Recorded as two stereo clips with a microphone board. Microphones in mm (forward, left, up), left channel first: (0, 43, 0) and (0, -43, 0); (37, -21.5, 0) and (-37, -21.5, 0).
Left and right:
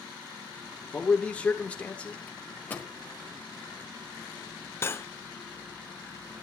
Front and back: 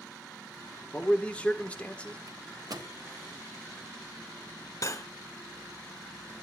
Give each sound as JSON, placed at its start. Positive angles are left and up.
{"t": 0.9, "sound": "a man speaking", "azimuth_deg": 40, "distance_m": 1.4}
{"t": 2.3, "sound": "a microwave", "azimuth_deg": 160, "distance_m": 1.2}
{"t": 4.8, "sound": "cutlery clinking", "azimuth_deg": 35, "distance_m": 0.6}